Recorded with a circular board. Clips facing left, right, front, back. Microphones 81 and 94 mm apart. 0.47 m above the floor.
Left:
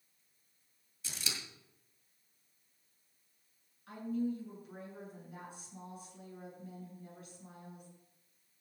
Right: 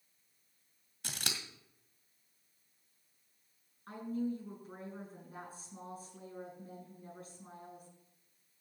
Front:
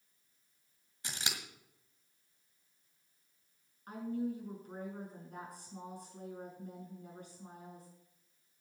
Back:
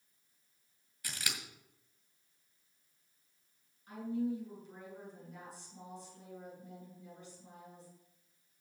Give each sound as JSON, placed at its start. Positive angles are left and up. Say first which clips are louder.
{"t": 1.0, "sound": "scissors", "louder": "right 2 dB, front 1 dB", "azimuth_deg": -65, "distance_m": 1.9}
{"t": 3.9, "sound": "a woman speaking", "louder": "left 1 dB, back 1 dB", "azimuth_deg": -35, "distance_m": 7.5}